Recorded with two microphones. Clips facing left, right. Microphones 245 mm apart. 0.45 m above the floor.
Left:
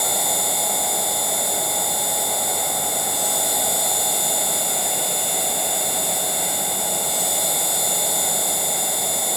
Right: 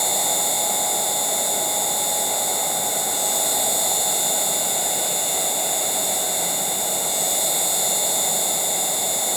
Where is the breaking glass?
No breaking glass in this recording.